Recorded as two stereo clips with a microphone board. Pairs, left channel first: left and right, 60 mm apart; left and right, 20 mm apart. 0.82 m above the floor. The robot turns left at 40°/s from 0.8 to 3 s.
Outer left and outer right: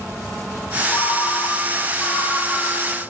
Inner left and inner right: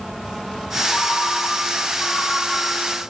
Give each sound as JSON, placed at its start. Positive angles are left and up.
{"t": 0.9, "sound": "a ringtone", "azimuth_deg": 75, "distance_m": 3.0}